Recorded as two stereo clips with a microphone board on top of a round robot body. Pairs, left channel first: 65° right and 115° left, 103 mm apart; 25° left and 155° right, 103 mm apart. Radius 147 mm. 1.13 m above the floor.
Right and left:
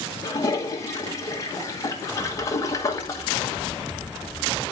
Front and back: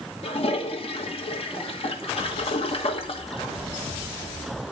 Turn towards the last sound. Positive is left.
turn(degrees=-5)